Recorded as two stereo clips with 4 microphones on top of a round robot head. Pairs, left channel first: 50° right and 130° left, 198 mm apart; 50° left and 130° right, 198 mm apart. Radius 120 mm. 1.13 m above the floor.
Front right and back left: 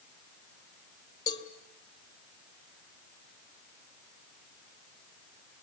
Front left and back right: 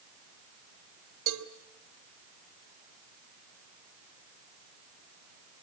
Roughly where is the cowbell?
Behind right.